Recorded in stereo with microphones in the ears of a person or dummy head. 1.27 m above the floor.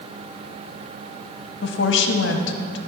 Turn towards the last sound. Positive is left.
turn(degrees=60)  # may be behind; listen again after turning